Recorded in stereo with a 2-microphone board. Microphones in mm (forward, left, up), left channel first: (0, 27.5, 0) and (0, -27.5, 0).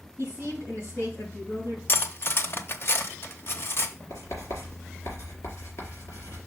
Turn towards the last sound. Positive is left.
turn(degrees=65)  # may be behind; listen again after turning